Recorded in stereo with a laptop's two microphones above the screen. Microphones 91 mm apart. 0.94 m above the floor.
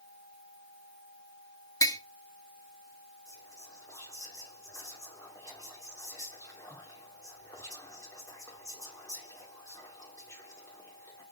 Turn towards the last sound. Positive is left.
turn(degrees=35)  # may be behind; listen again after turning